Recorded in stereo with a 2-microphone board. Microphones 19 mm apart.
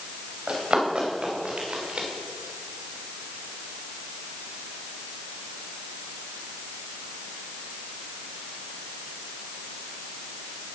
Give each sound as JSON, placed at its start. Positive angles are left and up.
{"t": 0.5, "sound": "running footsteps", "side_deg": -60, "distance_m": 5.0}